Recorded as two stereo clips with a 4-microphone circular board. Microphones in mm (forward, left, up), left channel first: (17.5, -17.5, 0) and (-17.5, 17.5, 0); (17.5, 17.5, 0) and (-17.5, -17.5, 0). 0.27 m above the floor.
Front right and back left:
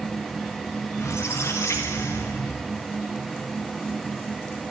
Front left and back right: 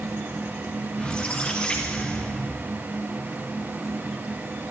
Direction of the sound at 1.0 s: 25° right.